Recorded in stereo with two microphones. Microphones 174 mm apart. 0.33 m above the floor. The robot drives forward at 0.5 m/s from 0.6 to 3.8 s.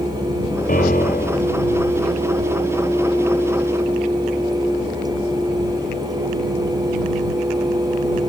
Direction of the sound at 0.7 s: 55° left (ahead or behind).